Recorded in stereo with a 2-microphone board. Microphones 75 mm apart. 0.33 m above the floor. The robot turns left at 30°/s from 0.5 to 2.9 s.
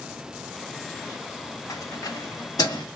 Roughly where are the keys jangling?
Left.